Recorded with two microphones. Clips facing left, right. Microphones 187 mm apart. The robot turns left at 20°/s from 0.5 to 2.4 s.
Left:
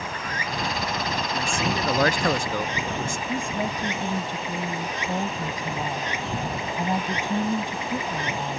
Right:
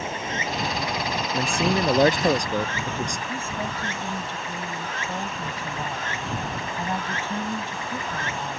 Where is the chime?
No chime in this recording.